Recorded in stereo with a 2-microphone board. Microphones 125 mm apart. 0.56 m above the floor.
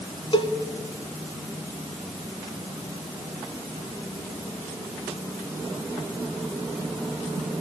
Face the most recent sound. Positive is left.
turn(degrees=45)  # may be behind; listen again after turning